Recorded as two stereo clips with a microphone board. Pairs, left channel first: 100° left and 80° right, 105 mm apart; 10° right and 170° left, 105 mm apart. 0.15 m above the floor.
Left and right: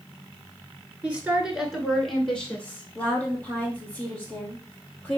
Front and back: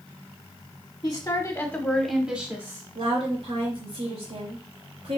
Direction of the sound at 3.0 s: 175° left.